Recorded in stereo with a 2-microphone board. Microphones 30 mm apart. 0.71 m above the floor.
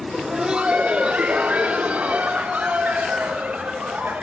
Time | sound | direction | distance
0.1 | laughter | 15° right (ahead or behind) | 0.6 m